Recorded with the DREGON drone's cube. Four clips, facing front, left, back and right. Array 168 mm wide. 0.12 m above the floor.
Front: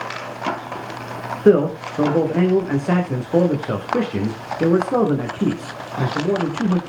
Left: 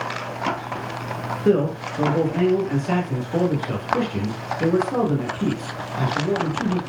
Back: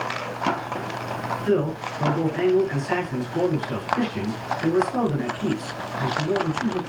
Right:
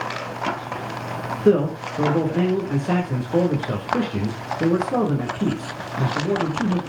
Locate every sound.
1.4 s a man speaking: 10° right, 7 m